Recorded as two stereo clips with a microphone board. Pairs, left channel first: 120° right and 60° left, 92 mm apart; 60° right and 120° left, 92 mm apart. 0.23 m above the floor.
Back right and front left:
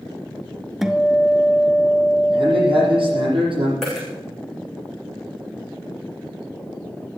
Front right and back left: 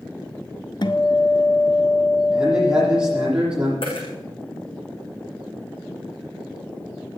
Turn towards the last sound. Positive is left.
turn(degrees=-35)